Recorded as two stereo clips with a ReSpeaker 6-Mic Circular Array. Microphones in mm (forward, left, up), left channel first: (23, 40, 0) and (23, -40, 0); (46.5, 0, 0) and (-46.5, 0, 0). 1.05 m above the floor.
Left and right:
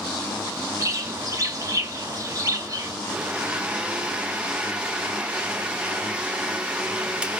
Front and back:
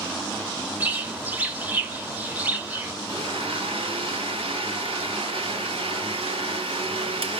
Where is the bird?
115° right, 0.7 m.